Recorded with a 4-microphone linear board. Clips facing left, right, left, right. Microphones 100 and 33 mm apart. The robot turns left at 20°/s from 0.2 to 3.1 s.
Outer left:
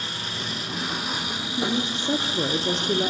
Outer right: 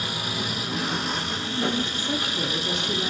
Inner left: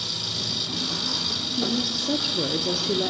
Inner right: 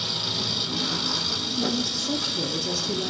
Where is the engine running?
170° right, 6 m; by 3.1 s 135° left, 6 m.